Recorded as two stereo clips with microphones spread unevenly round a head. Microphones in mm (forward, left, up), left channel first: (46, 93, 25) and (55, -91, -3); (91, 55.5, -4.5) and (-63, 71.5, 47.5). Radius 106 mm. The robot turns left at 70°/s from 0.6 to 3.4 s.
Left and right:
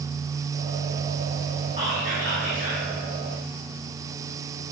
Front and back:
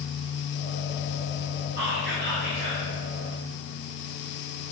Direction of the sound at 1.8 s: 160° right.